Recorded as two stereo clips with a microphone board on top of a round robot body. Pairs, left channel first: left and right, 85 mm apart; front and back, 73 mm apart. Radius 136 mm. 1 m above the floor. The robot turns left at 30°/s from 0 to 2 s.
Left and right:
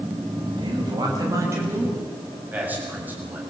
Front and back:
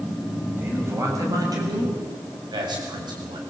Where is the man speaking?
115° right, 7 m; by 3.4 s 160° right, 7 m.